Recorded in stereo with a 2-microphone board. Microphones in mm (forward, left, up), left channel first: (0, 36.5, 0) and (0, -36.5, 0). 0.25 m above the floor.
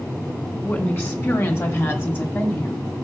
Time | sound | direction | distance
0.6 | a woman speaking | 25° left (ahead or behind) | 1.7 m